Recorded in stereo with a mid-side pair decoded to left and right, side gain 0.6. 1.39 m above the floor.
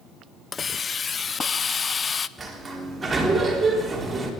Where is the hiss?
30° left, 0.6 m.